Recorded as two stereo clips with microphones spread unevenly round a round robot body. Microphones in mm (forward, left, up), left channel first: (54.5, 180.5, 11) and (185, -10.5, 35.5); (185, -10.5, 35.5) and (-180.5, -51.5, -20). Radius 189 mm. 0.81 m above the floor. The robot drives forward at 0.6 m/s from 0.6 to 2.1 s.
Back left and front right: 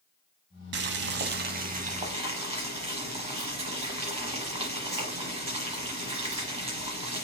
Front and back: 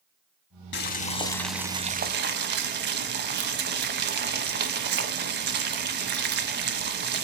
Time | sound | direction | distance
0.7 | boiling | 40° right | 1.0 m